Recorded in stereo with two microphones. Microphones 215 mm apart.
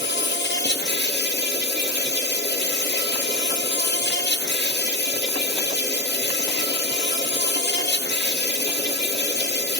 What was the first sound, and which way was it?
An insect, 55° left (ahead or behind).